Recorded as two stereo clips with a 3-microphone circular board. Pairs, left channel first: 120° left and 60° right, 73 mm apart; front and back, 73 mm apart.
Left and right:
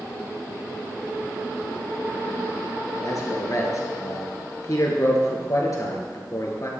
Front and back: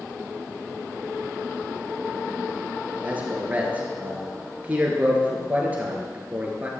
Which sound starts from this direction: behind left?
A man speaking, at 3.0 s.